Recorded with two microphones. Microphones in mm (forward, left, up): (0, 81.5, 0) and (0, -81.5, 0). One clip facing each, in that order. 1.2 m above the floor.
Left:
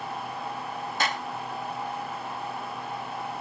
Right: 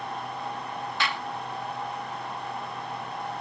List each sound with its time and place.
1.0 s a clap: 40° left (ahead or behind)